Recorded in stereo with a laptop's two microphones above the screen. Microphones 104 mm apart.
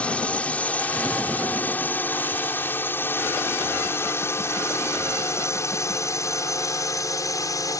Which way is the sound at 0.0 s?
10° left (ahead or behind).